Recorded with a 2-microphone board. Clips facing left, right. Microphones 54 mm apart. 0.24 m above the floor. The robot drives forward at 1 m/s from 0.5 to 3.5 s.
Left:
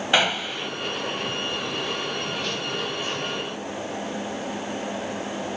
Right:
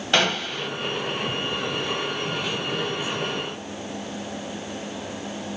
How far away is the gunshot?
About 1.6 m.